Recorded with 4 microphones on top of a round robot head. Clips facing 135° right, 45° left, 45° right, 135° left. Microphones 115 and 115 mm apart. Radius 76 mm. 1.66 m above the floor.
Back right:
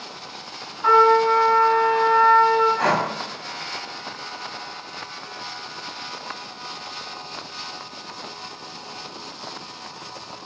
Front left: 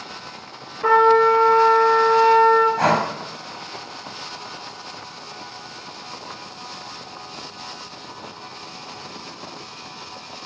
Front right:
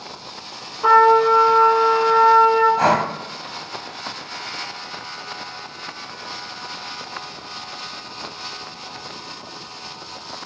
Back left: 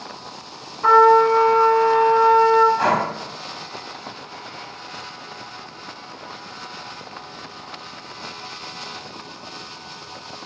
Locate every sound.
0.8 s a trumpet: 25° left, 3 m
2.8 s breathing: 5° left, 1.7 m